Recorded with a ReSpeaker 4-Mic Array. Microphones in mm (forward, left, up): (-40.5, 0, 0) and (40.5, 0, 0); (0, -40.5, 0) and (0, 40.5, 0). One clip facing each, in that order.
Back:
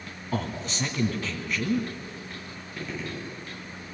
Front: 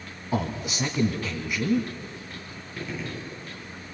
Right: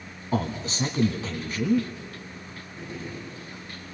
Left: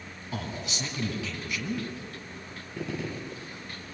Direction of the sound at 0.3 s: 75° right.